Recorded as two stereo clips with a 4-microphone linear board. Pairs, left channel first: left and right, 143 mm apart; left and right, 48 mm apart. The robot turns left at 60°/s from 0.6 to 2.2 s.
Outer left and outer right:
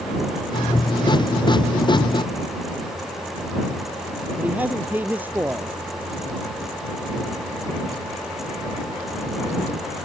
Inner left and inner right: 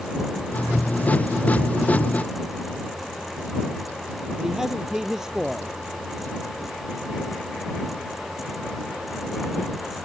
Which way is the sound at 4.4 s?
10° right (ahead or behind).